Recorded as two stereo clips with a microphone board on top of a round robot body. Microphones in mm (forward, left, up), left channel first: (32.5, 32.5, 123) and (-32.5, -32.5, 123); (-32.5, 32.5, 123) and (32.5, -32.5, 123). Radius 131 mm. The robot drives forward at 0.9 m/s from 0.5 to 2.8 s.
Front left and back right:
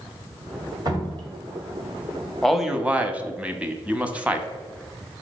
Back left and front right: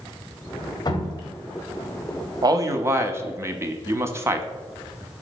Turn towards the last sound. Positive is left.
turn(degrees=-70)